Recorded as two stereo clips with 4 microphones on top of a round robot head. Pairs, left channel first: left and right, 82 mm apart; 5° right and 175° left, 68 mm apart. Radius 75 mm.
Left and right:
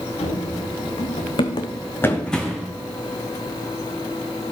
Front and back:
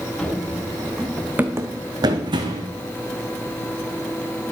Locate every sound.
0.2 s running footsteps: 75° left, 3 m; by 2.7 s 175° right, 1.9 m